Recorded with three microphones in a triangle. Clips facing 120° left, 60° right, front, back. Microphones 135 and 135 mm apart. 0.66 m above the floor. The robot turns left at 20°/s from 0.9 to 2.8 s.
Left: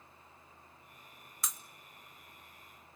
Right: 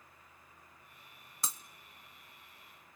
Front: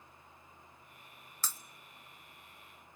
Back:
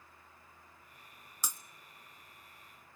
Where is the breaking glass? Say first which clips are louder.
Right 1 dB, even; 110° right, 0.9 m.